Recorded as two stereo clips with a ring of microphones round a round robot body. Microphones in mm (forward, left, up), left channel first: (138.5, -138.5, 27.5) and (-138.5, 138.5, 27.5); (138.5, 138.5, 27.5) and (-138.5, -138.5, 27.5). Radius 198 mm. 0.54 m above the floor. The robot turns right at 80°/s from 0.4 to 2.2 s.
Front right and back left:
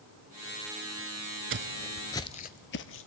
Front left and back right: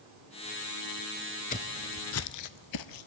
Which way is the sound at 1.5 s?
100° left.